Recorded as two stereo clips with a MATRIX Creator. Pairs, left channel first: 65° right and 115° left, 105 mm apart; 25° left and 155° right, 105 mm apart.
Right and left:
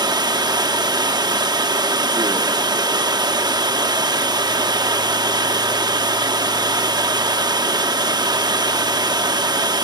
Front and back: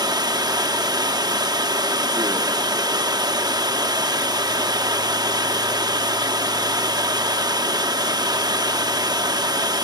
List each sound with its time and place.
0.0 s running water: 155° left, 0.9 m